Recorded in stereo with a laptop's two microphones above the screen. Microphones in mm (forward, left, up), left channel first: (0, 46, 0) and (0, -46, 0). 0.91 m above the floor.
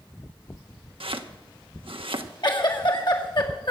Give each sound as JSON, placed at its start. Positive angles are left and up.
{"t": 1.0, "sound": "chopping", "side_deg": -70, "distance_m": 1.0}
{"t": 2.4, "sound": "a giggle", "side_deg": 55, "distance_m": 2.0}